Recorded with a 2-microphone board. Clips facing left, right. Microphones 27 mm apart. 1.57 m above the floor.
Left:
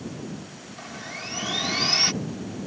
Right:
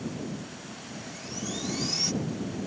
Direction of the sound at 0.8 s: 50° left (ahead or behind).